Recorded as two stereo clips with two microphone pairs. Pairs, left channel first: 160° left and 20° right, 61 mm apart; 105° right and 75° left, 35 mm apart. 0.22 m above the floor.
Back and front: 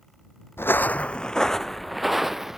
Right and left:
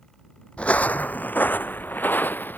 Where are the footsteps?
155° right; by 2.6 s 105° right.